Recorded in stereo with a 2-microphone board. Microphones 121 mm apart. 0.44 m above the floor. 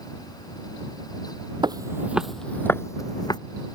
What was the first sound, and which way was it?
Footsteps, 40° right (ahead or behind).